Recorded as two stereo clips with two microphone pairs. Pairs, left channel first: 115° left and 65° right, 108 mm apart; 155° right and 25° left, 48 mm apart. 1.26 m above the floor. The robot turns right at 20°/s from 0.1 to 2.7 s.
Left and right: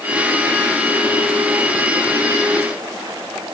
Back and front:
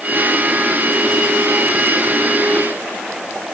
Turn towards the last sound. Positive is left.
No sound to turn to.